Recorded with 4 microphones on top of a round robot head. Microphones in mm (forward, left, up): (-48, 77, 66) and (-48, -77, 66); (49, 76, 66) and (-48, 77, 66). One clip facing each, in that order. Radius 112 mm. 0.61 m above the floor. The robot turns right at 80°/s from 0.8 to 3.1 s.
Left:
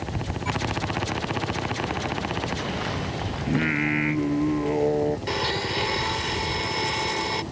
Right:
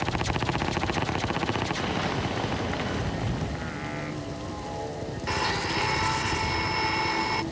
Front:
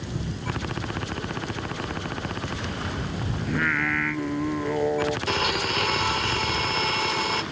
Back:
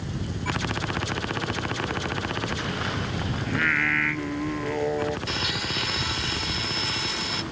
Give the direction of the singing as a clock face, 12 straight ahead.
9 o'clock.